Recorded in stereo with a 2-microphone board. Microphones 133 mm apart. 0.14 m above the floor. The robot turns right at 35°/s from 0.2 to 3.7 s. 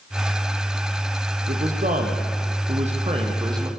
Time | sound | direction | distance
1.5 | a man speaking | 105° right | 5 m